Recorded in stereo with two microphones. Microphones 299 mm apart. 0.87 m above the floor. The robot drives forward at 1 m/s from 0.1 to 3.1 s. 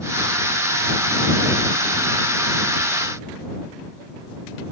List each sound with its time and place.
Only background noise.